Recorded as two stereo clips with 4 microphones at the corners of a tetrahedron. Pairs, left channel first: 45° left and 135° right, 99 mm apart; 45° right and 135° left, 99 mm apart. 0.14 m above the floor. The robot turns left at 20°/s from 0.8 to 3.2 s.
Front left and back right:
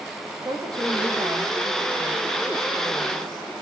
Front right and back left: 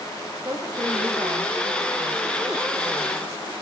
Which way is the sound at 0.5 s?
Straight behind.